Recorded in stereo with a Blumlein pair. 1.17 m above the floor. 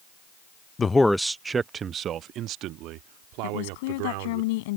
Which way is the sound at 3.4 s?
50° left.